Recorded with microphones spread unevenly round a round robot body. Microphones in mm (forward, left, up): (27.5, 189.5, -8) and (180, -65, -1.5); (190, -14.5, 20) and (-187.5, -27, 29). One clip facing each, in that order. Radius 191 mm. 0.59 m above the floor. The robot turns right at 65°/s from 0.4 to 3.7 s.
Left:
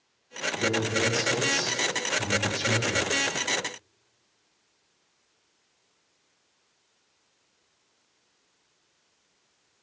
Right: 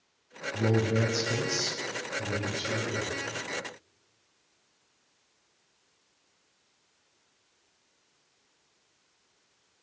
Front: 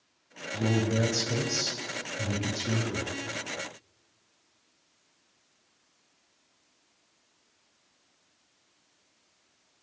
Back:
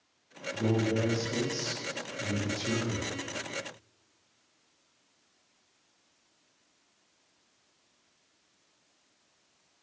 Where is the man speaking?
60° right, 3.5 m; by 3.1 s 105° left, 3.5 m.